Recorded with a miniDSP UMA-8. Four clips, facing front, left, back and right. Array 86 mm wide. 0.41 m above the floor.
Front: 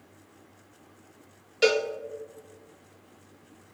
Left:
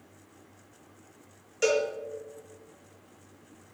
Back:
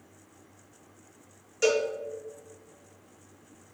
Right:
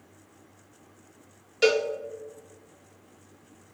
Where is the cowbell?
35° right, 0.6 m.